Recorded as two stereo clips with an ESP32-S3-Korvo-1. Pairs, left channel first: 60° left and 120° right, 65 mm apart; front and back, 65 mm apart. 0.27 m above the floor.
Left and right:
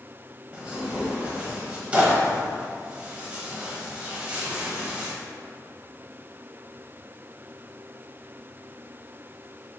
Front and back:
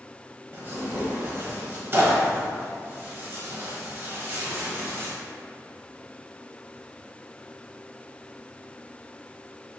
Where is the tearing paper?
175° right, 0.9 m.